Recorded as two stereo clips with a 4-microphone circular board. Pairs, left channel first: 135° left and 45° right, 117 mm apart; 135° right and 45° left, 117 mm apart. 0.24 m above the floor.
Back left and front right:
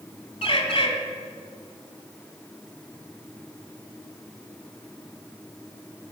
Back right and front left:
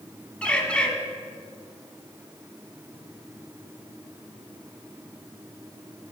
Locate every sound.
0.4 s a bird: 145° left, 1.1 m